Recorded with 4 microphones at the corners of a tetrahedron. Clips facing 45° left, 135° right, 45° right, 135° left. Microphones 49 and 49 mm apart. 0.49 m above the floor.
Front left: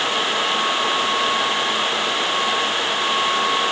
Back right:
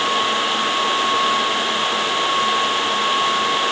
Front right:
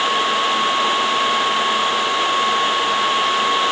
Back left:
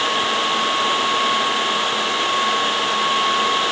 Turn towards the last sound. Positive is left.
No sound to turn to.